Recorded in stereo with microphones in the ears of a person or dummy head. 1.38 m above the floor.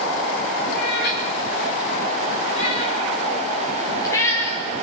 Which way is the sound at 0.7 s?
60° left (ahead or behind).